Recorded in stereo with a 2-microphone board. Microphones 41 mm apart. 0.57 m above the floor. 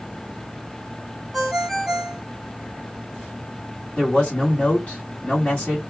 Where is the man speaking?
40° left (ahead or behind), 1.8 m.